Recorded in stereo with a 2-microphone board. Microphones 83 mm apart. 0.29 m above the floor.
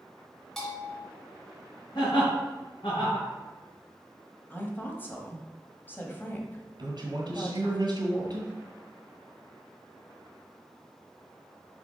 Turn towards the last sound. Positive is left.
turn(degrees=-60)  # may be behind; listen again after turning